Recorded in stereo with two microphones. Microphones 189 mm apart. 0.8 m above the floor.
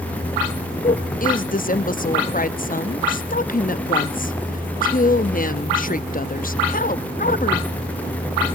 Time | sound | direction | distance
0.8 | a woman speaking | 45° left (ahead or behind) | 0.8 m